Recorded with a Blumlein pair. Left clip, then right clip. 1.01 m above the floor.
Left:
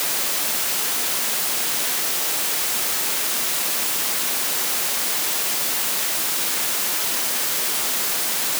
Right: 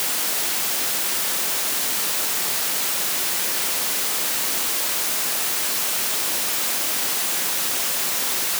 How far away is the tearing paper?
I don't hear tearing paper.